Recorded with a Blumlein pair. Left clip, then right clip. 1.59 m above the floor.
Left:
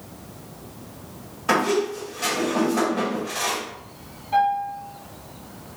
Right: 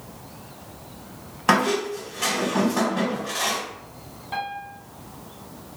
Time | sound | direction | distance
1.5 | a squeak | 25° right | 1.8 m
4.3 | a piano | 25° right | 1.8 m